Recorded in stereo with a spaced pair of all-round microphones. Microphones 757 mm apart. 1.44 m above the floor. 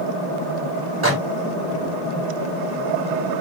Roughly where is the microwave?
Centre.